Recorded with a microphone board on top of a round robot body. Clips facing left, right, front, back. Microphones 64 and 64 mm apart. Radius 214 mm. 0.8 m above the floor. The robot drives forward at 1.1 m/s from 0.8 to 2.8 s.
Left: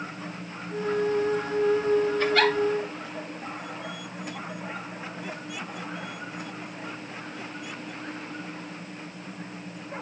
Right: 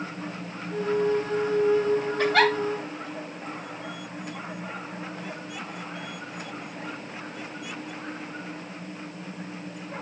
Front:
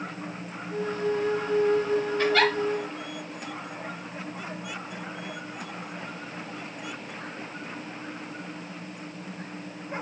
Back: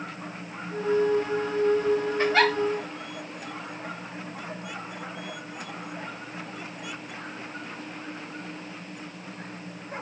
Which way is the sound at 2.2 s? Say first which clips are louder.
Right 1 dB, even; 115° right.